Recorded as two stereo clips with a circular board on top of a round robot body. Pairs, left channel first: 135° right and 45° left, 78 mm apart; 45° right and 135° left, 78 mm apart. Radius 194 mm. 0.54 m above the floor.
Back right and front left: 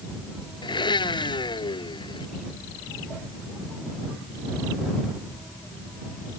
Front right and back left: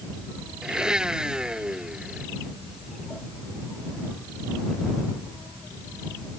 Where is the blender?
145° right.